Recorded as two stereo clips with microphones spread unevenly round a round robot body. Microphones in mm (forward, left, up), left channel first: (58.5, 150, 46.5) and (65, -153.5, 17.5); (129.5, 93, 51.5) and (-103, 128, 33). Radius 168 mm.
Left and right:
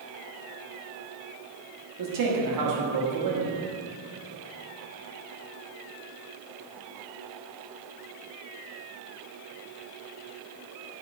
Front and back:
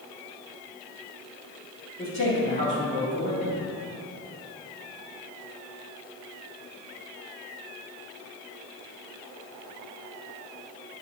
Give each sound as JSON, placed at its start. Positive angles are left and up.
{"t": 2.0, "sound": "a man speaking", "azimuth_deg": -80, "distance_m": 1.4}